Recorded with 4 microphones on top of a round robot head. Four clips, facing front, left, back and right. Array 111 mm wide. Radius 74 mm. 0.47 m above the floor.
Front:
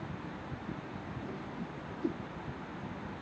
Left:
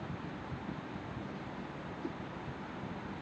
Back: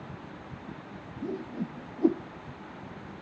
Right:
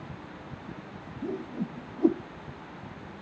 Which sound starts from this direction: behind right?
A whoosh, at 1.2 s.